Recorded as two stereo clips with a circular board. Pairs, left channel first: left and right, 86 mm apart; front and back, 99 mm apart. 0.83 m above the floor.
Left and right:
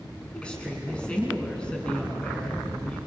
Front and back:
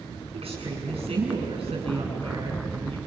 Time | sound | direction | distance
0.3 | a woman speaking | 170° left | 7.5 m